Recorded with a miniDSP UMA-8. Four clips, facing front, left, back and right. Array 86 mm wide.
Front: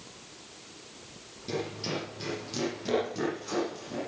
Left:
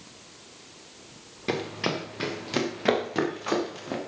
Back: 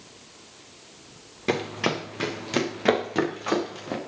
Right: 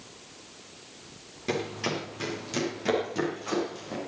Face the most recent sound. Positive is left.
turn(degrees=150)